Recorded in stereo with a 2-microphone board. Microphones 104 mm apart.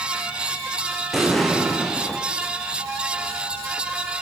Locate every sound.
1.1 s an explosion: centre (ahead or behind), 4.5 m